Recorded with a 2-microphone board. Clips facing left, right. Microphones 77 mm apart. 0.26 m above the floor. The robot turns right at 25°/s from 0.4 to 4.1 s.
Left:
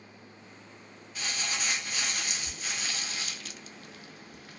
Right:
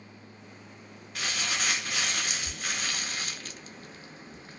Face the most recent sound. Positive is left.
turn(degrees=-30)